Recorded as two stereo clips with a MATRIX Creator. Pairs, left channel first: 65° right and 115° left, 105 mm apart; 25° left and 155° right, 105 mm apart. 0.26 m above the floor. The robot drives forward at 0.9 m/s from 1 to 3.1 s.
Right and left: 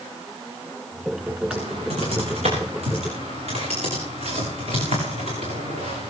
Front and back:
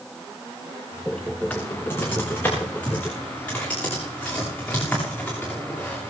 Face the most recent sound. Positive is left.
turn(degrees=100)